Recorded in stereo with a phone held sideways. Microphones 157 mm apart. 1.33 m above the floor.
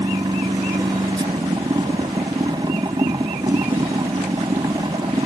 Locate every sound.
0.0 s a machine running: 30° right (ahead or behind)